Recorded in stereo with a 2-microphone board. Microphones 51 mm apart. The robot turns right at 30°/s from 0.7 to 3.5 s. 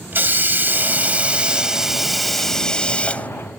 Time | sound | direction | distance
0.1 | a hiss | 45° right | ?